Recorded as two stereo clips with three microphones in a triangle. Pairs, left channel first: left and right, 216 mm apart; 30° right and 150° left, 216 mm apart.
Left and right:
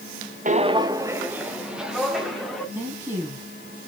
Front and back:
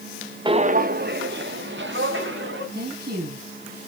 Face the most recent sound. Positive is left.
turn(degrees=-170)